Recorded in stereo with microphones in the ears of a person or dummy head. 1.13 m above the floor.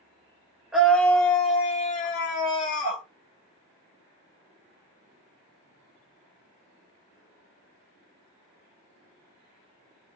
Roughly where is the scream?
Centre.